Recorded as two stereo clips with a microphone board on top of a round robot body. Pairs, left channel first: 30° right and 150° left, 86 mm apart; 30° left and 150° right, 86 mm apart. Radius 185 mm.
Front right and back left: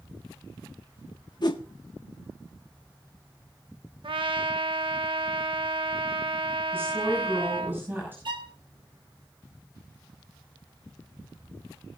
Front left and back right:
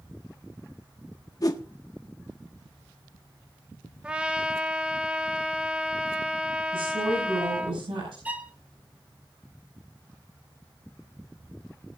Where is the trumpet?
135° left, 1.1 m.